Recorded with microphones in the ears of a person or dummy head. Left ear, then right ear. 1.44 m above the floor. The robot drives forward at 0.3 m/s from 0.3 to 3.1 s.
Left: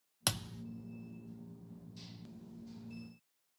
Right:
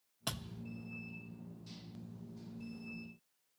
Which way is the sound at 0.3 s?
60° left (ahead or behind).